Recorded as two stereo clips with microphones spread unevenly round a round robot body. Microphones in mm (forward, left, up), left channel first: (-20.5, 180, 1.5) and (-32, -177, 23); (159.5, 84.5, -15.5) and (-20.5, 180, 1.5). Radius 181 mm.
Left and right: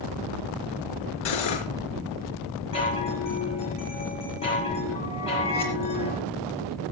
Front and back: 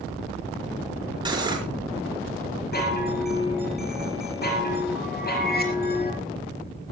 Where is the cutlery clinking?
85° left, 4.5 m.